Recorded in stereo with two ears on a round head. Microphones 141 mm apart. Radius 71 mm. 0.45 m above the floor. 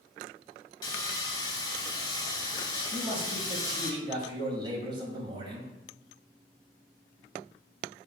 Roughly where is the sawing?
Left.